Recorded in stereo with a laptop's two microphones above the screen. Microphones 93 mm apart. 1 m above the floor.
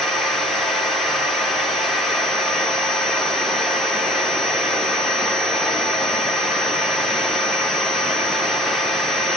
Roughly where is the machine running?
Centre.